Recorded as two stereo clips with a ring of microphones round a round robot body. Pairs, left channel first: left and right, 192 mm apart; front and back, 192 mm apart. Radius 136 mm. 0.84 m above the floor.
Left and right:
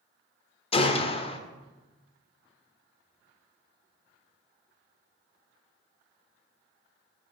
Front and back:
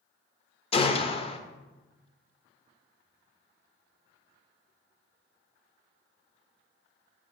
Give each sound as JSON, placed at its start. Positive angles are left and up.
{"t": 0.7, "sound": "a gunshot", "azimuth_deg": 45, "distance_m": 0.5}